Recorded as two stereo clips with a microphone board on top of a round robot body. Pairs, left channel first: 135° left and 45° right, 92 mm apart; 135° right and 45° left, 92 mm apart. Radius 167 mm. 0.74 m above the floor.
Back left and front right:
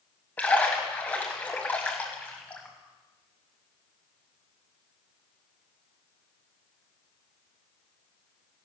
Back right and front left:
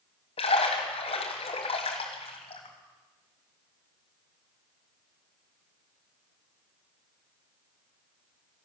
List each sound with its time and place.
0.4 s a splash: 150° right, 1.3 m